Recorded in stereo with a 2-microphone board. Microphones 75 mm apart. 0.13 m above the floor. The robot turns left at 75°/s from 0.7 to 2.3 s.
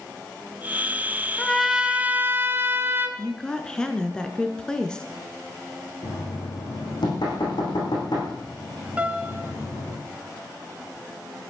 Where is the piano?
20° right (ahead or behind), 1.4 m.